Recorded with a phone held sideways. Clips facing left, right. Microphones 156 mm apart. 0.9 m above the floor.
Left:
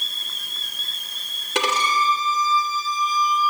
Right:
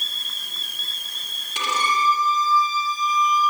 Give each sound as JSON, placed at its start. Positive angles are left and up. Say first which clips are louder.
{"t": 1.6, "sound": "a violin", "louder": "left 2 dB", "side_deg": 80, "distance_m": 3.5}